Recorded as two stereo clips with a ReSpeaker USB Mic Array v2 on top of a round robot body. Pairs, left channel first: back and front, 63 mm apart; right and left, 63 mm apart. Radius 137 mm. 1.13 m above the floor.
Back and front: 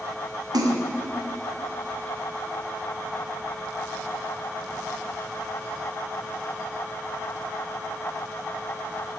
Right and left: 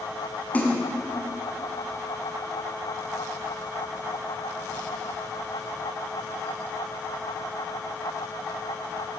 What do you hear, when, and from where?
0.5 s a splash: 20° right, 1.6 m